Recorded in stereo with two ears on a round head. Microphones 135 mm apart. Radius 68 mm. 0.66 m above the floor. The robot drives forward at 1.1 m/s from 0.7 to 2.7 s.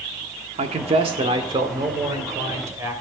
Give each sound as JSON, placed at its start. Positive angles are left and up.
{"t": 0.6, "sound": "a man speaking", "side_deg": -45, "distance_m": 1.9}